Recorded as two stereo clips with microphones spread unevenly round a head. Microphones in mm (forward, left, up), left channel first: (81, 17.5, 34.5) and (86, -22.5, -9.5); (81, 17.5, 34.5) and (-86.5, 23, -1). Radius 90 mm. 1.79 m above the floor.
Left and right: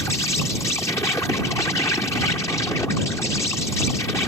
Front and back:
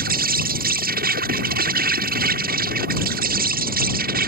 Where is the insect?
145° left.